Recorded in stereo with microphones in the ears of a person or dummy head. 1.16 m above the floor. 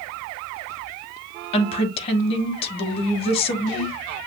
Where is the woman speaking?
35° left (ahead or behind), 1.2 m.